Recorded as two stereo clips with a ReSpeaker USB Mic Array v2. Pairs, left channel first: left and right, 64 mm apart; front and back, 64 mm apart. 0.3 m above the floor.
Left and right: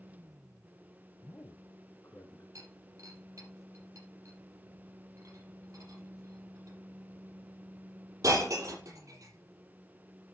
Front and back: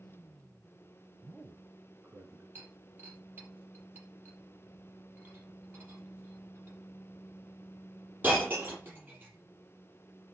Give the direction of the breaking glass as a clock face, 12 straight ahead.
4 o'clock.